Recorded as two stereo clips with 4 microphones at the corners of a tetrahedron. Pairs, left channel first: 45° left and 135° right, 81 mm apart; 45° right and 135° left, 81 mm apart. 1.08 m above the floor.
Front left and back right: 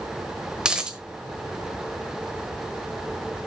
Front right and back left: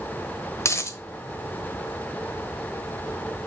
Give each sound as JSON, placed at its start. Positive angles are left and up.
{"t": 0.6, "sound": "a dropped coin", "azimuth_deg": -60, "distance_m": 1.0}